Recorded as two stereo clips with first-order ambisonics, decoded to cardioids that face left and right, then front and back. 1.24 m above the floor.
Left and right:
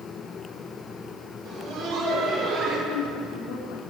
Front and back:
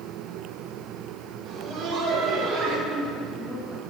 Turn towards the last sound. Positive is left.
turn(degrees=95)